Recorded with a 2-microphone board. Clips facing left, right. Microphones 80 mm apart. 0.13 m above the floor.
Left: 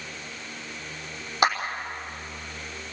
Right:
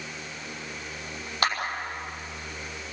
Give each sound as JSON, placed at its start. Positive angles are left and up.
{"t": 1.4, "sound": "a clap", "side_deg": 20, "distance_m": 5.0}